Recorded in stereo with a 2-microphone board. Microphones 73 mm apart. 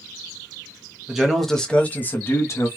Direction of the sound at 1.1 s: 10° right (ahead or behind).